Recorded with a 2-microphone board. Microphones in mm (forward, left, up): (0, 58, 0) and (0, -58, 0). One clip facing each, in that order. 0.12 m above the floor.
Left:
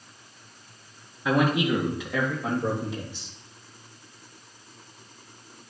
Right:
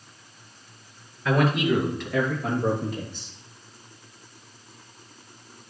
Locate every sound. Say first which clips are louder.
1.2 s a man speaking: right 1 dB; 15° left (ahead or behind), 2.5 m; by 3.3 s centre (ahead or behind), 4 m